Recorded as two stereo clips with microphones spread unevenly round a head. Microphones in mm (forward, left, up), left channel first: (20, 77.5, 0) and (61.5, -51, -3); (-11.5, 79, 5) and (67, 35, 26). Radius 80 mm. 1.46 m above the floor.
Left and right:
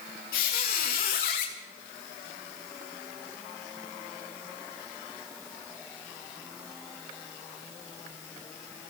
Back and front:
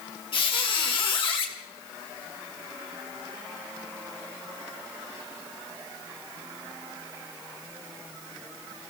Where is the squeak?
125° left, 3 m.